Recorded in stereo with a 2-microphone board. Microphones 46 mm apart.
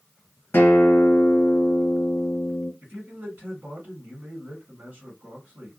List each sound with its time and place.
0.5 s a guitar: 50° left (ahead or behind), 1.6 m
2.8 s a man speaking: 40° right (ahead or behind), 1.7 m